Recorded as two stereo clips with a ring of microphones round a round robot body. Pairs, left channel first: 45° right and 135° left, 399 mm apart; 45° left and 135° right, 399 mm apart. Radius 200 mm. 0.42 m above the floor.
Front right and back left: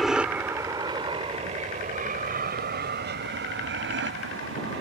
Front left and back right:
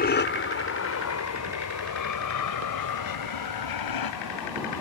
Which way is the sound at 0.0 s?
45° left.